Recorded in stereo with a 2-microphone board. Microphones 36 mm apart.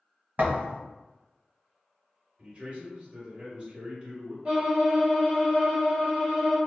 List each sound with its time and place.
0.4 s a thud: 55° right (ahead or behind), 1.2 m
2.4 s a man speaking: 30° right (ahead or behind), 0.9 m
4.5 s a violin: 25° right (ahead or behind), 1.3 m